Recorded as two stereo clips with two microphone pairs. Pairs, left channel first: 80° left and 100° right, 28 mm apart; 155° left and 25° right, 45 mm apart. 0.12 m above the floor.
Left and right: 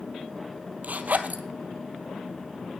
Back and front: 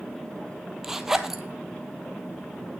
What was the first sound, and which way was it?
A zipper, 110° right.